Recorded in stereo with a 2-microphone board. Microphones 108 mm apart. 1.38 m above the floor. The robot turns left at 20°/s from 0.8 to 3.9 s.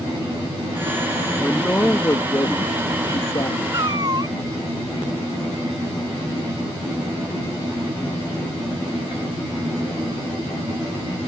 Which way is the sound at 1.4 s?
170° left.